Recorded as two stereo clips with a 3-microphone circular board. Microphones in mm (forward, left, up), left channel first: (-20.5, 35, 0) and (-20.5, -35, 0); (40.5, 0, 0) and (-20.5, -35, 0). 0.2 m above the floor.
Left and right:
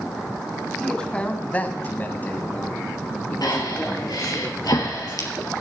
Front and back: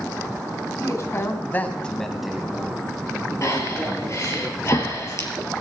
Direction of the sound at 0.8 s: 15° left.